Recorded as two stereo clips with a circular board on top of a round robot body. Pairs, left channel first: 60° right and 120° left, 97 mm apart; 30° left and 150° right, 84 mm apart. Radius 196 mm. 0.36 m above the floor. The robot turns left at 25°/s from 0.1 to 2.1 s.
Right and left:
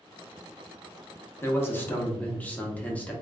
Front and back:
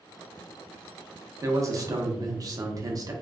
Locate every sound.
1.4 s a man speaking: 110° right, 1.0 m; by 3.1 s 130° right, 1.0 m